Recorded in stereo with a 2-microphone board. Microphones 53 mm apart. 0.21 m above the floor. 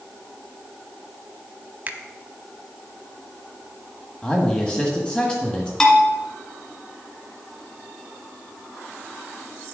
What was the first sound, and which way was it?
A finger snap, 30° right (ahead or behind).